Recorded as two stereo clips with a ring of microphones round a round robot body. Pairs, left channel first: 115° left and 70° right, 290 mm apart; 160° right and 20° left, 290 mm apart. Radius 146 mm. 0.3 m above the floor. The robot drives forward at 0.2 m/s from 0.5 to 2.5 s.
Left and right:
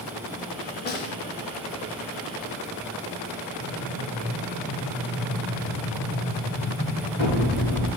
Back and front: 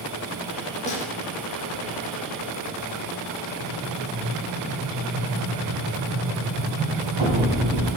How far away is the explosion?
About 1.5 m.